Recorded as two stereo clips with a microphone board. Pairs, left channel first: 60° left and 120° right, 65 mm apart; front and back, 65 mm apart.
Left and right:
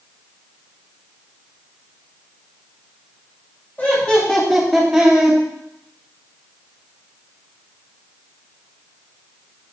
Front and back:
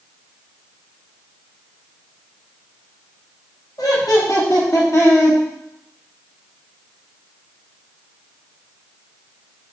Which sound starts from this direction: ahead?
Laughter, at 3.8 s.